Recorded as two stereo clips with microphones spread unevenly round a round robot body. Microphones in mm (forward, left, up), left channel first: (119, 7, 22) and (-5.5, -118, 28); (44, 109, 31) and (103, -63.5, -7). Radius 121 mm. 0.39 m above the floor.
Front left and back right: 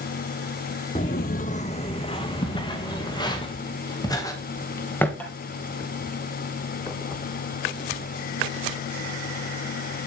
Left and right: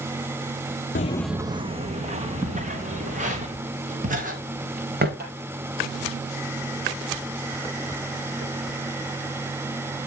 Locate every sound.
0.9 s footsteps: 105° left, 0.5 m; by 3.4 s 20° right, 3.5 m
2.4 s footsteps: 5° right, 3.5 m; by 5.1 s 35° right, 3 m
5.2 s tapping: 35° right, 4.5 m